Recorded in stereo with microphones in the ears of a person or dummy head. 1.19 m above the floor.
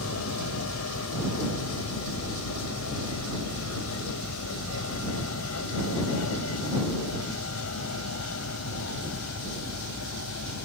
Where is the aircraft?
75° left (ahead or behind).